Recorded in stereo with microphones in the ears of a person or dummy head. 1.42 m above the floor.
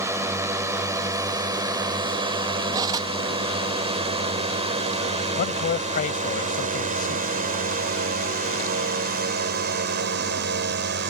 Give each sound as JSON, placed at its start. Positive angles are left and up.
{"t": 0.0, "sound": "a drone", "side_deg": -20}
{"t": 2.7, "sound": "cutlery clinking", "side_deg": -20}
{"t": 5.3, "sound": "a man speaking", "side_deg": 40}